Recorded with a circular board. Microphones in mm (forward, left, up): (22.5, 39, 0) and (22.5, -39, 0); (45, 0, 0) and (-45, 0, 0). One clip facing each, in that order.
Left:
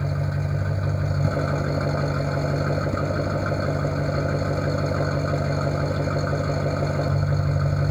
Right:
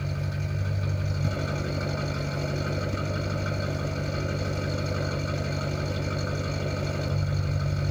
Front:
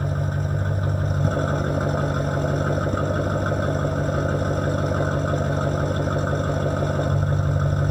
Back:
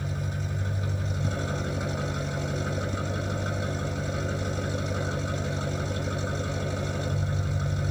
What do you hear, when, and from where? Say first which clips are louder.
0.0 s an engine running: left 6 dB, front 7 dB; 35° left, 0.9 m